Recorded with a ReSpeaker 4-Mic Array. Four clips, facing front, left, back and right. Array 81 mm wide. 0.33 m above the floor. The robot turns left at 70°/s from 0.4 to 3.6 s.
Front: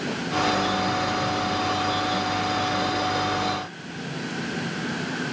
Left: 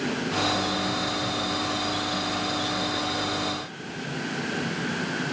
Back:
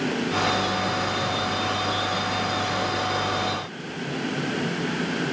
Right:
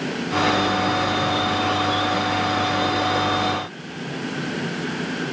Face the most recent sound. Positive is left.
No sound to turn to.